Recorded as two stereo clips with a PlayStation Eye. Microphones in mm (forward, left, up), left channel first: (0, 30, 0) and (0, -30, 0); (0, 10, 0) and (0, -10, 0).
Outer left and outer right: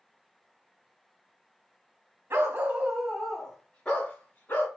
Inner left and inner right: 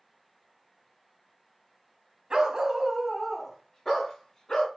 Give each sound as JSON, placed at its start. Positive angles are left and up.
{"t": 2.3, "sound": "a dog barking", "side_deg": -40, "distance_m": 0.7}